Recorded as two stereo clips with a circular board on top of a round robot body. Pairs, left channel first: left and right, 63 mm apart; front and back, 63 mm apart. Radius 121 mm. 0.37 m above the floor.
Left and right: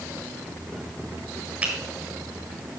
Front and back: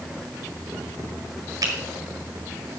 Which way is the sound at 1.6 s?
155° right.